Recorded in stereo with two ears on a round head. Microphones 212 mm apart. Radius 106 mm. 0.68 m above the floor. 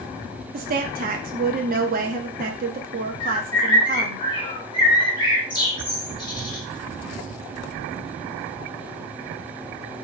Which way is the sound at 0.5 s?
40° right (ahead or behind).